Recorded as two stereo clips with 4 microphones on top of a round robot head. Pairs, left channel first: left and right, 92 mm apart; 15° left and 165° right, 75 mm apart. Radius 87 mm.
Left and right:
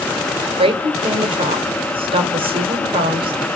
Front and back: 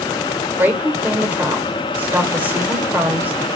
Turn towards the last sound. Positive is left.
turn(degrees=-100)